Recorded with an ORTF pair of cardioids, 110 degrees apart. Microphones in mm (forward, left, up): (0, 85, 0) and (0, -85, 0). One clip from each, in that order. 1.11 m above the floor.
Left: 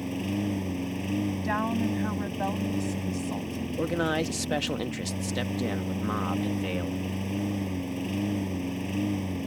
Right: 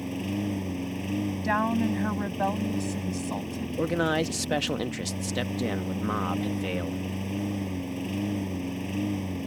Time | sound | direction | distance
0.0 | a lawn mower | straight ahead | ?
1.4 | a woman speaking | 25° right | ?
3.8 | a man speaking | 10° right | ?